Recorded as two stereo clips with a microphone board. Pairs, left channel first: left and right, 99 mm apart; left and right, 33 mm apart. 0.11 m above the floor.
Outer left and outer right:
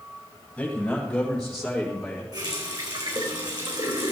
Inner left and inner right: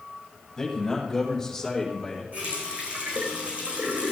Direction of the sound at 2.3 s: 50° right (ahead or behind).